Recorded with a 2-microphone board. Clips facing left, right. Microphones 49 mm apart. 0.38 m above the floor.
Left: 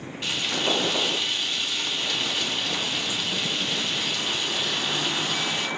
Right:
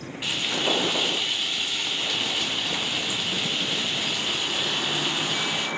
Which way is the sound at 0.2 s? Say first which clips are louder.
Even; 15° right (ahead or behind).